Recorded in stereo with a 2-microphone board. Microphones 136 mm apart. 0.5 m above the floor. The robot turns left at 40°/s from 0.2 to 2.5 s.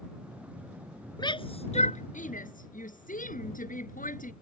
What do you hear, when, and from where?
1.2 s a shout: 30° left (ahead or behind); by 4.3 s 80° left